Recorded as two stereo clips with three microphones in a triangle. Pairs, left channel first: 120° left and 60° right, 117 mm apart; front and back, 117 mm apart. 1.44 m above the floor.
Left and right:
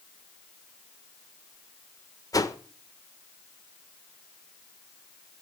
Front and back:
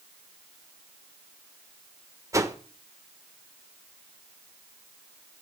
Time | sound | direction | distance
2.3 | a whoosh | 145° left | 1.2 m